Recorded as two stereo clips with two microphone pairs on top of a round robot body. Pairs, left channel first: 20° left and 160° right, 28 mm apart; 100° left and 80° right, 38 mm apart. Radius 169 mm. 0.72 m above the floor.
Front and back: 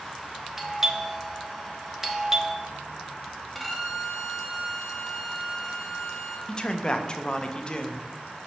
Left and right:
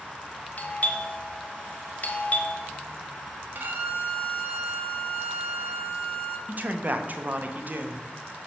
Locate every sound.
0.6 s a doorbell: 125° left, 1.3 m
3.5 s a violin: 70° right, 1.5 m
6.5 s a man speaking: 40° right, 0.9 m